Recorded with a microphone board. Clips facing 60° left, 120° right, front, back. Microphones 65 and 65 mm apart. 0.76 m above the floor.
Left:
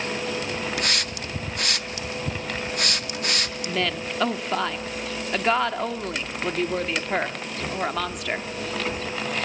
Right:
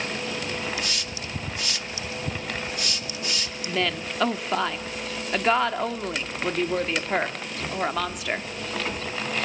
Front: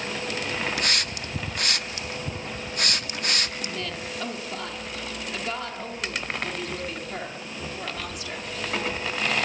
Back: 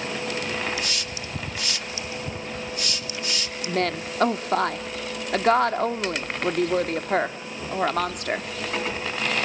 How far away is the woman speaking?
About 1.3 m.